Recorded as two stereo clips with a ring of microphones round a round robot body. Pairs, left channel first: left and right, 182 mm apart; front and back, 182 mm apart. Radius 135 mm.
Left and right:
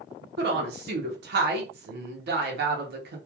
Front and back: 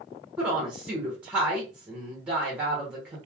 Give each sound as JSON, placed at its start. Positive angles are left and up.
{"t": 0.4, "sound": "a woman speaking", "azimuth_deg": -95, "distance_m": 0.8}